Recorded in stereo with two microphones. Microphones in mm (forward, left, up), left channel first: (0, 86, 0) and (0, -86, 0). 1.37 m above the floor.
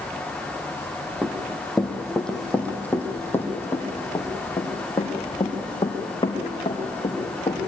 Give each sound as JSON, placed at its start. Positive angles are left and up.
{"t": 1.2, "sound": "running footsteps", "side_deg": -5, "distance_m": 2.5}